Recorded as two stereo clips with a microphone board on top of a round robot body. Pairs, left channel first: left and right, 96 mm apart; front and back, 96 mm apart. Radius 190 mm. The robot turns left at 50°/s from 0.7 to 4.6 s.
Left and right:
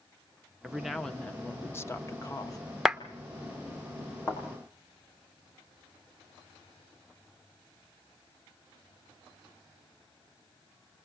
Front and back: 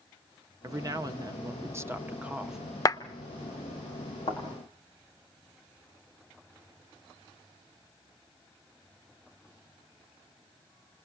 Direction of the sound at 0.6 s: 170° right.